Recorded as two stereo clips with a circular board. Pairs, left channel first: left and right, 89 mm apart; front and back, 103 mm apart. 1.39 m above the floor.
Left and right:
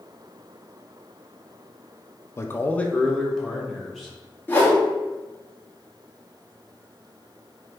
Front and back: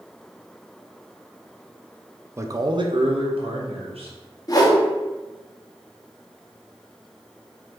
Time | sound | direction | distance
2.4 | a man speaking | 130° left | 0.5 m
4.5 | a whoosh | 30° left | 1.1 m